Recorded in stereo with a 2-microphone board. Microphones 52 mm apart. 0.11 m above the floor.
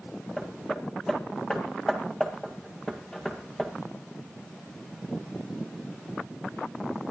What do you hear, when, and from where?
0.4 s hammering: 10° left (ahead or behind), 2 m